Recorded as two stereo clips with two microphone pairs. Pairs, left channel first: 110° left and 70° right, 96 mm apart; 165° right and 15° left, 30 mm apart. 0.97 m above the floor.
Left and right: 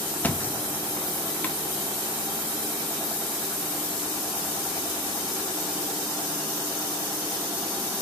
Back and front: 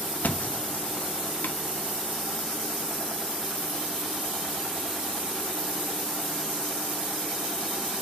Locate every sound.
0.2 s a thud: straight behind, 0.5 m